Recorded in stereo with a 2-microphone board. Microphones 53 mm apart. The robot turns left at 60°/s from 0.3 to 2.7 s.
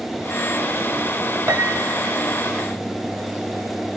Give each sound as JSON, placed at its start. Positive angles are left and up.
{"t": 1.5, "sound": "a piano", "azimuth_deg": -70, "distance_m": 1.3}